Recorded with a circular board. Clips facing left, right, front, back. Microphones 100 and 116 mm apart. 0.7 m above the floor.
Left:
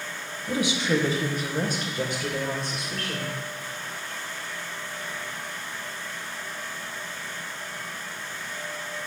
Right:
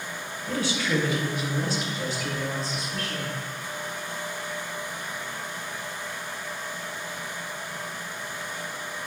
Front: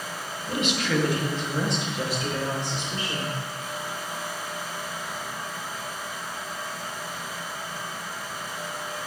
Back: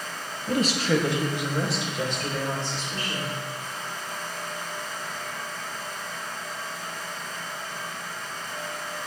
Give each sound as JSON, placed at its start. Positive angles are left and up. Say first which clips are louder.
{"t": 0.5, "sound": "a woman speaking", "louder": "left 2 dB, back 3 dB", "azimuth_deg": 165, "distance_m": 0.8}